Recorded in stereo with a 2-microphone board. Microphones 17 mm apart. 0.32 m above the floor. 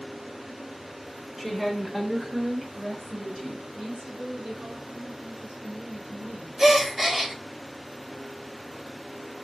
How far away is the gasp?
About 0.7 m.